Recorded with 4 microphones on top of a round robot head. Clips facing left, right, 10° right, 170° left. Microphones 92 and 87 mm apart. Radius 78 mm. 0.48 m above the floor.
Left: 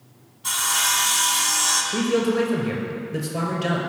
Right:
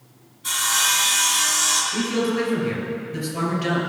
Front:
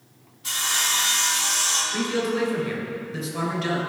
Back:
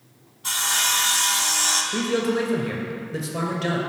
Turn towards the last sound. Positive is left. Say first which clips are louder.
# left 3 dB, back 2 dB
turn(degrees=125)